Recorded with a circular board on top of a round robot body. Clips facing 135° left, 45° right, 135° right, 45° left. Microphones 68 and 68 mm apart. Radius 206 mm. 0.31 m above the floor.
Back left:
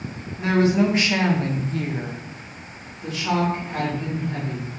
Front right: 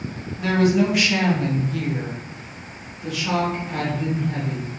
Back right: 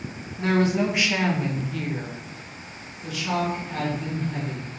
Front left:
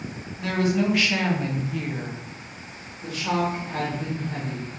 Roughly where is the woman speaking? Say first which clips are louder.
Even, back right 2 dB; behind.